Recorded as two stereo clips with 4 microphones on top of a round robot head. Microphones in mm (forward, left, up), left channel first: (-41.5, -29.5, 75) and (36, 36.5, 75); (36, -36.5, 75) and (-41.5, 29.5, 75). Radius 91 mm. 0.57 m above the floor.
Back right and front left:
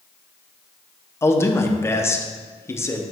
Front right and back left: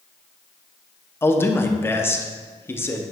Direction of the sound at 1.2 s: 90° right.